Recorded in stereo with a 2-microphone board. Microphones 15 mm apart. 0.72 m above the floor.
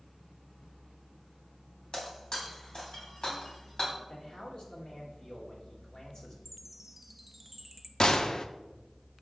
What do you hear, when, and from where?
1.9 s breaking glass: 65° left (ahead or behind), 2.5 m
4.1 s a man speaking: 55° left (ahead or behind), 1.5 m
6.5 s a chime: 20° right (ahead or behind), 0.6 m
8.0 s a gunshot: 45° left (ahead or behind), 0.6 m